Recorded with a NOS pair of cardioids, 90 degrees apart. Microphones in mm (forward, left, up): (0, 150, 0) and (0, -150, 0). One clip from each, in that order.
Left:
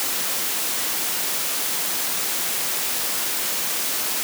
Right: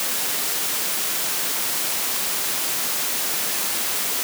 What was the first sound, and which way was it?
Only background noise.